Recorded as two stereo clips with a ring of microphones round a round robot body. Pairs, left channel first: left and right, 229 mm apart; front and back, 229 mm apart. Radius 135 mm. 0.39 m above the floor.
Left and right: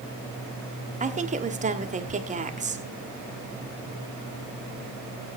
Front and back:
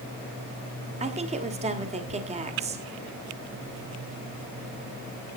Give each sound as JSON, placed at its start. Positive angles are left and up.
{"t": 1.0, "sound": "a woman speaking", "azimuth_deg": -130, "distance_m": 1.8}